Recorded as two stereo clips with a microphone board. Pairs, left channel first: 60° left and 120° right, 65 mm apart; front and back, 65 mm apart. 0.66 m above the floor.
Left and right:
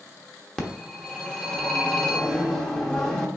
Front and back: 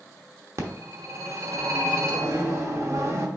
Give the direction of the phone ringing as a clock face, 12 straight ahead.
7 o'clock.